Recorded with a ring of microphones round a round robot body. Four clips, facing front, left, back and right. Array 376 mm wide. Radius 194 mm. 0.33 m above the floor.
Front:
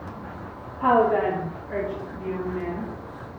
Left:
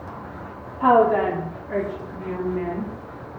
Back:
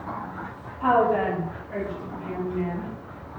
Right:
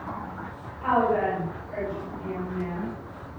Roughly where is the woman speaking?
Left.